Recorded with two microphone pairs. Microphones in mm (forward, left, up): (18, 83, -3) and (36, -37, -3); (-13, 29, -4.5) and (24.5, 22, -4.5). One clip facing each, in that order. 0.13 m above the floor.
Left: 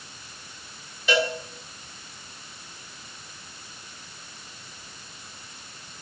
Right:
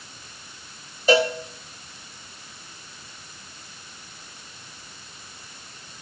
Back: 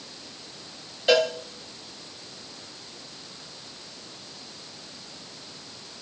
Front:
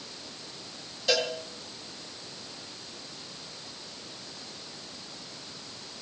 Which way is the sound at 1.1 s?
130° right.